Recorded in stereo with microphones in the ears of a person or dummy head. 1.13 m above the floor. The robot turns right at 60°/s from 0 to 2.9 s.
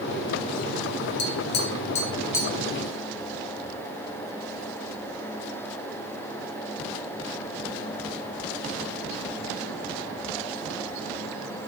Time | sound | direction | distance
1.2 | tapping | 50° left (ahead or behind) | 0.6 m